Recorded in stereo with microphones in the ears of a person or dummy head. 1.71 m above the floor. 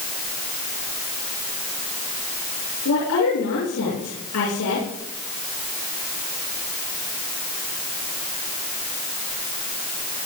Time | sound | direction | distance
2.9 | a woman speaking | 75° left (ahead or behind) | 7 m